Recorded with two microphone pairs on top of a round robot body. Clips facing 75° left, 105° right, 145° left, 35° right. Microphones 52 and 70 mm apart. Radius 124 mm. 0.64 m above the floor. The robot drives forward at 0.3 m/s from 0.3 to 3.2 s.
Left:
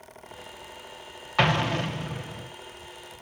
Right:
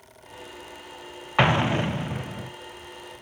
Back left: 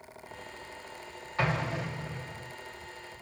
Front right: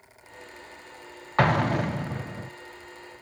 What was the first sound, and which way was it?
An explosion, 30° right.